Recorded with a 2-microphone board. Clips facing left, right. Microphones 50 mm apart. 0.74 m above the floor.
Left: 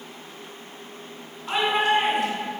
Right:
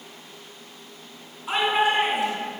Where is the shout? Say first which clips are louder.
Even; 10° right (ahead or behind), 6.5 m; by 2.5 s 5° right (ahead or behind), 5.5 m.